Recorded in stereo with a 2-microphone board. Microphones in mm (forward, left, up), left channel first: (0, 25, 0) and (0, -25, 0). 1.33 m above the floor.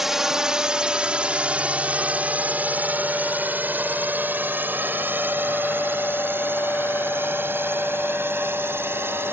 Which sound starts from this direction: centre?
A drone, at 0.0 s.